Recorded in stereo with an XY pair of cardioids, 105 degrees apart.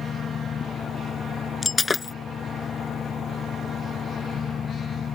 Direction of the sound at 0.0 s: 45° left.